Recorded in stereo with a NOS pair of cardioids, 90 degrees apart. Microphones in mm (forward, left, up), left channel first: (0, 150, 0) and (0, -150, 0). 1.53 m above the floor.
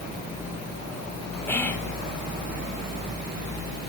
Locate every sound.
1.5 s whispering: 5° left, 1.8 m